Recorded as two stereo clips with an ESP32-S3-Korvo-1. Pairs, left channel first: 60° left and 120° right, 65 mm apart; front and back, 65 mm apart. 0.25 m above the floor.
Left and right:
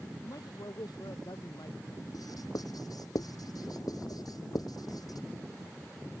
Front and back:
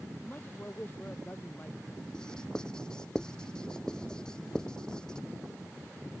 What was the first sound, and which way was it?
A man speaking, 55° left.